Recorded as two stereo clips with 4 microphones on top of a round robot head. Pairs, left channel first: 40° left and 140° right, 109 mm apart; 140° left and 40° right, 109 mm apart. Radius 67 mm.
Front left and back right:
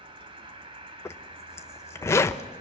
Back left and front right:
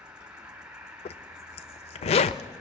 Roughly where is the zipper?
Left.